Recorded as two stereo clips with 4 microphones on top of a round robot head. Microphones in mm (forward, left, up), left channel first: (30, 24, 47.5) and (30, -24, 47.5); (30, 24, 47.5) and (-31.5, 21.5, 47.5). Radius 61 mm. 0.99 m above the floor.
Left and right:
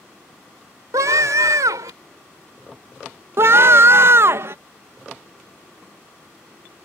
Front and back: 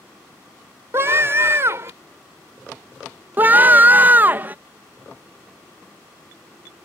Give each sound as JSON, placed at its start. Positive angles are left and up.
{"t": 0.9, "sound": "a scream", "azimuth_deg": -120}
{"t": 3.4, "sound": "a scream", "azimuth_deg": -115}